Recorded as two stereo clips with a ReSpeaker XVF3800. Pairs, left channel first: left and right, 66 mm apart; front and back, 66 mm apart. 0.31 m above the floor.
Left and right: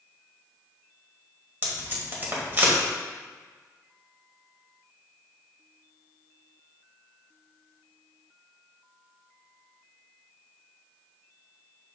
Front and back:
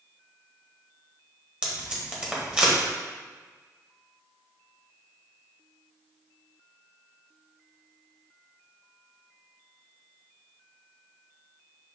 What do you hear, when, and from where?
1.6 s tape being pulled: 115° right, 1.6 m